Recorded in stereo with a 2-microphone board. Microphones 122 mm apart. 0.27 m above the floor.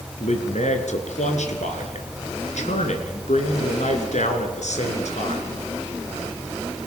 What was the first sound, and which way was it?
A man speaking, 70° left (ahead or behind).